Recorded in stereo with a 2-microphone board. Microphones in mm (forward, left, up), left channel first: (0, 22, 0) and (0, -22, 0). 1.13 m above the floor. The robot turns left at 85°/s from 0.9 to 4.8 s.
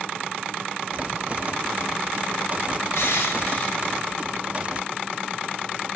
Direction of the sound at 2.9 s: 90° left.